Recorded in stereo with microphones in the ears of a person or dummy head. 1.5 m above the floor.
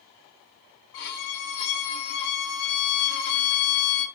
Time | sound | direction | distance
0.9 | a violin | 60° left (ahead or behind) | 1.1 m